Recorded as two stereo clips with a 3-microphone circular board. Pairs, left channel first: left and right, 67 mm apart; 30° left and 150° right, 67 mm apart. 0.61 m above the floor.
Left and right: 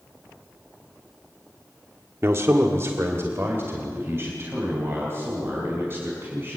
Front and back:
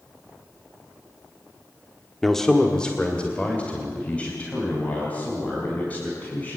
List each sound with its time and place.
2.2 s a man speaking: 55° right, 1.2 m; by 6.6 s 35° right, 6 m